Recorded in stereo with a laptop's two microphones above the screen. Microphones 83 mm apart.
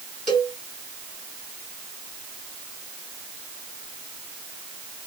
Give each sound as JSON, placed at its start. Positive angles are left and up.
{"t": 0.3, "sound": "a cowbell", "side_deg": 0, "distance_m": 2.5}